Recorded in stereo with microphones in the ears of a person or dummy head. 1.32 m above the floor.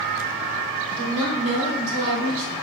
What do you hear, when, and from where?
0.9 s a woman speaking: 45° right (ahead or behind), 2 m